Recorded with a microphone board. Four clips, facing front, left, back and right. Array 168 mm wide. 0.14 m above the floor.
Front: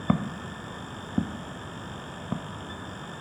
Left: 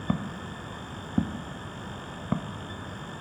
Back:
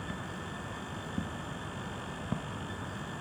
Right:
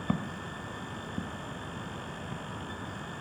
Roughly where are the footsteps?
Ahead.